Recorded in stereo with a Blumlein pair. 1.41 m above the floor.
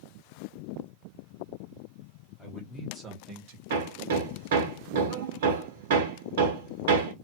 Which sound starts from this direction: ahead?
A man speaking, at 2.4 s.